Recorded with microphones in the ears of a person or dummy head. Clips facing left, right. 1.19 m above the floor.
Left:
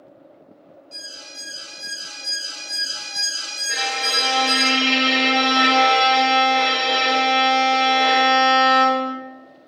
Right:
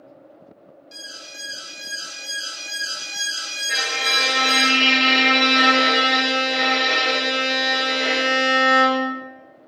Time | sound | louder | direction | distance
0.9 | an alarm | even | 20° right (ahead or behind) | 0.6 m
3.7 | a violin | left 2 dB | 20° right (ahead or behind) | 0.6 m